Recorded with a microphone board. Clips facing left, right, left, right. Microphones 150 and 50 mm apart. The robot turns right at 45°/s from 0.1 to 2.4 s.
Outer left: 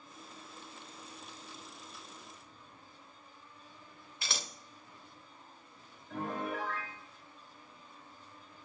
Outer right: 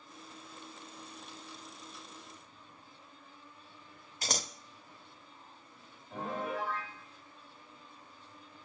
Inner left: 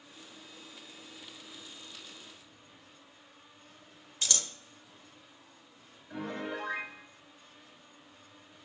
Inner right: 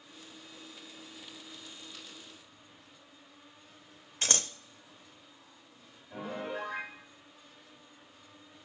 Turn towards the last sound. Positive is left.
turn(degrees=65)  # may be behind; listen again after turning